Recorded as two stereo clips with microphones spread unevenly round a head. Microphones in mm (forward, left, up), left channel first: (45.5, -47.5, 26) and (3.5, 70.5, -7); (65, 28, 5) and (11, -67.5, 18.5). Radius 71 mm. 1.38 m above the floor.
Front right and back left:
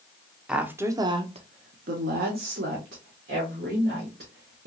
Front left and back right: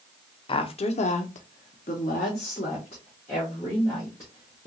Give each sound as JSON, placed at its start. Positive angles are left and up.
{"t": 0.5, "sound": "a woman speaking", "azimuth_deg": 20, "distance_m": 0.7}